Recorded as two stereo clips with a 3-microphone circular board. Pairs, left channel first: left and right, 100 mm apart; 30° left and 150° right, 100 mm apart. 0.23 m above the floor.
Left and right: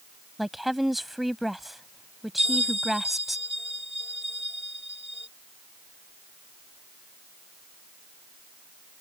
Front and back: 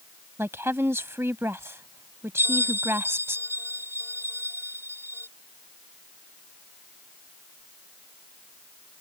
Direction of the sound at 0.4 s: Straight behind.